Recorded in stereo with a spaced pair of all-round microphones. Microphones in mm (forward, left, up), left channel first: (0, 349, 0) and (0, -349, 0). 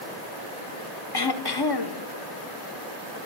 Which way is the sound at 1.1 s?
35° left (ahead or behind).